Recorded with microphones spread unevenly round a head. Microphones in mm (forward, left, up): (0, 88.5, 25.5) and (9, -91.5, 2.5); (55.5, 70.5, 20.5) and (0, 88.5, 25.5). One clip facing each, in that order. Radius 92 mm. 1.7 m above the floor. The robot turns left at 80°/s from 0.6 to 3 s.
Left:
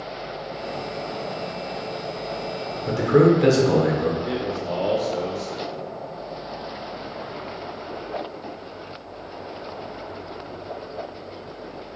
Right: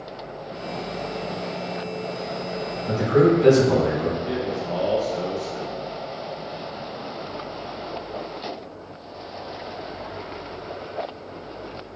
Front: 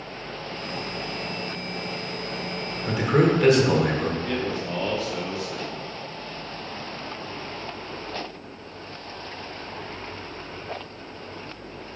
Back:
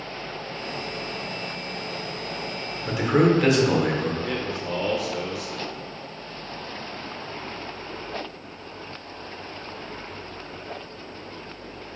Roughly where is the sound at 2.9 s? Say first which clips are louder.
Left 1 dB, back 1 dB; left.